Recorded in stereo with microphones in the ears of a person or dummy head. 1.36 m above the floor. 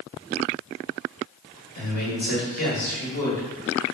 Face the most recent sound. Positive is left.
turn(degrees=75)  # may be behind; listen again after turning